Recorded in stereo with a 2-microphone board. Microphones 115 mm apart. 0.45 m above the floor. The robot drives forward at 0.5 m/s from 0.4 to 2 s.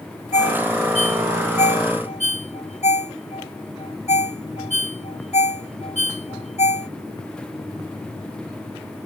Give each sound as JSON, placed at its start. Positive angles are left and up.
{"t": 0.3, "sound": "a ringtone", "side_deg": 75}